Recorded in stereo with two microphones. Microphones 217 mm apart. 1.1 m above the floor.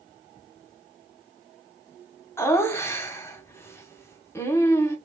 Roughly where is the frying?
I don't hear frying.